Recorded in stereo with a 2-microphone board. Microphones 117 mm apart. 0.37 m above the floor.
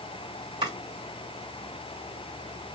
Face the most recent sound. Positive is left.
turn(degrees=-40)  # may be behind; listen again after turning